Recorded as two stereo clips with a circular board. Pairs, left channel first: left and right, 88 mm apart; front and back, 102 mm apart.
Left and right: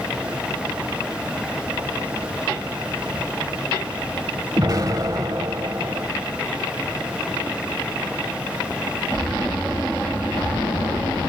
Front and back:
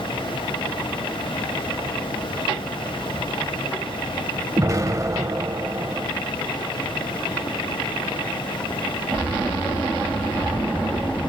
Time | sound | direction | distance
4.6 | an explosion | 130° right | 0.9 m